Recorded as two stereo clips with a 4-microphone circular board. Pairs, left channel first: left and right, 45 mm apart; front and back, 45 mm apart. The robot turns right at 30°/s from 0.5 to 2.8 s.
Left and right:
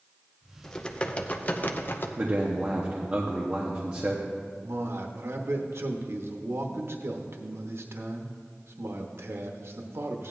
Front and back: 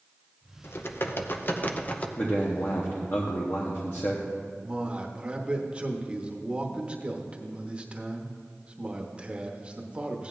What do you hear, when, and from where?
0.6 s typing on a keyboard: 15° left, 0.7 m; by 2.1 s 55° left, 0.7 m
2.2 s a man speaking: 45° right, 1.0 m; by 4.3 s 25° right, 1.0 m
4.6 s a man speaking: 115° right, 1.0 m